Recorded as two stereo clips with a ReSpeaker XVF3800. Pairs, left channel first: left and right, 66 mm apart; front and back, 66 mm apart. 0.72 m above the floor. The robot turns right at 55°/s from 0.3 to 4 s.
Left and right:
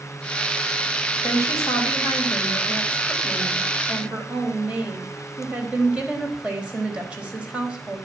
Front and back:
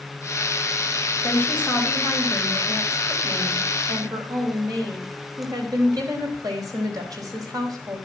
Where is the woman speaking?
45° left, 4.5 m; by 8.0 s 160° right, 4.5 m.